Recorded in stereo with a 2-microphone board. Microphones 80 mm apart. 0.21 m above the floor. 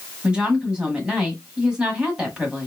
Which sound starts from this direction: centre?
A woman speaking, at 0.2 s.